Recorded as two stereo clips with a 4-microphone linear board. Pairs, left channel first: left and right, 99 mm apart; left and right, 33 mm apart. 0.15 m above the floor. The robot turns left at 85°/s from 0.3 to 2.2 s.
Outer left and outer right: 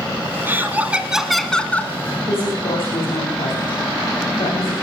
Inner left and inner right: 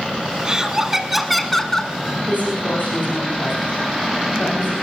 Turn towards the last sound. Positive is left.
turn(degrees=80)